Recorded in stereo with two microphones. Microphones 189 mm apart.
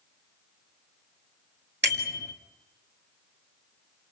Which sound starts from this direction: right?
A bicycle bell, at 1.8 s.